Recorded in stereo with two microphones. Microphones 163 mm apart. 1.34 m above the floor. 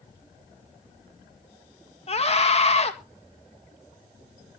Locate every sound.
2.1 s a scream: 40° left (ahead or behind), 2 m